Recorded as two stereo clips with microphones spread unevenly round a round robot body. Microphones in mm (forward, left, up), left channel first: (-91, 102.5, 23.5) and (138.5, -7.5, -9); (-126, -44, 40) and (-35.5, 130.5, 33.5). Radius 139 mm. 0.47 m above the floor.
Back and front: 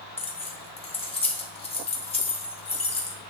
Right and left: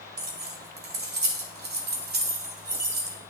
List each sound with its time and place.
0.2 s keys jangling: 85° left, 1.3 m